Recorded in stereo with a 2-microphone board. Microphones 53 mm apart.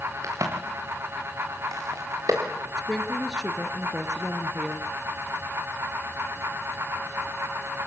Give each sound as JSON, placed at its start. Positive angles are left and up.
{"t": 0.2, "sound": "a crack", "side_deg": -85, "distance_m": 6.5}
{"t": 2.8, "sound": "a woman speaking", "side_deg": 10, "distance_m": 2.5}